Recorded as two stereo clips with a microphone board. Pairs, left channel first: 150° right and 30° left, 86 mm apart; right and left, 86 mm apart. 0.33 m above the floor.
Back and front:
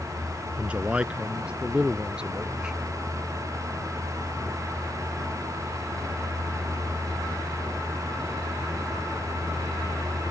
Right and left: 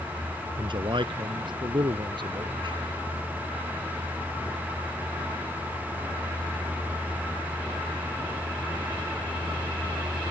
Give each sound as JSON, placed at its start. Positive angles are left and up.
{"t": 0.6, "sound": "a man speaking", "azimuth_deg": 105}